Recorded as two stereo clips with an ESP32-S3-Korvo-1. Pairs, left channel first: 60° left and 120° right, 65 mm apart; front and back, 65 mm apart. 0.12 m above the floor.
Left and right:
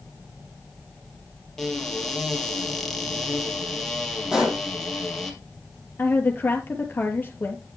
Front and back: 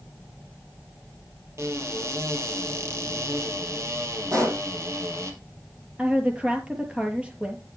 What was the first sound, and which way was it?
A cupboard door, 145° left.